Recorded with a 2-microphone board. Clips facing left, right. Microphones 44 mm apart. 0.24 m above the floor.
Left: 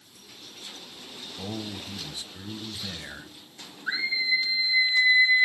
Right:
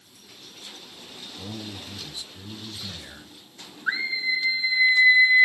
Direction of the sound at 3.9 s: 25° right (ahead or behind).